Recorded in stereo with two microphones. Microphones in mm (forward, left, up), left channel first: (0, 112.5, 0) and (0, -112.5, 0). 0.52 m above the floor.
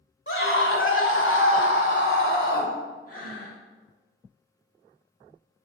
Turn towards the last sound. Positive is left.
turn(degrees=40)  # may be behind; listen again after turning